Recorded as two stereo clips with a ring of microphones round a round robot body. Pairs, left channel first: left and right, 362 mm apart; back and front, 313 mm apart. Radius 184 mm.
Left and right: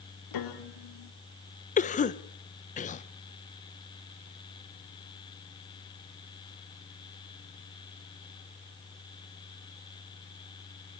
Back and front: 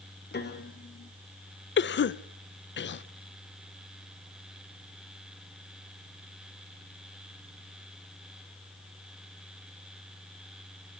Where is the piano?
120° left, 2.5 m.